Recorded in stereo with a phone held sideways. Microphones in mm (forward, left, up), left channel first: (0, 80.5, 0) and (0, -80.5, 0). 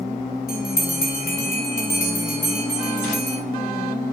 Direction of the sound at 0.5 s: 70° left (ahead or behind).